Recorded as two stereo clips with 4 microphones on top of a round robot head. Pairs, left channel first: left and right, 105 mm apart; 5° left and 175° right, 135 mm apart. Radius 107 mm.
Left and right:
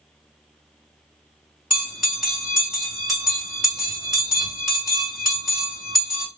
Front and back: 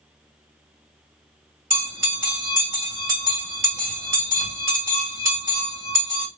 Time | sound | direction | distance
1.7 | a bell | 170° right | 1.8 m